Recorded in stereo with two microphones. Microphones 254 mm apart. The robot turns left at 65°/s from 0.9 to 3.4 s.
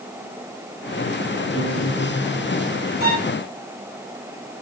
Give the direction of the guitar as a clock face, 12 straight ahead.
6 o'clock.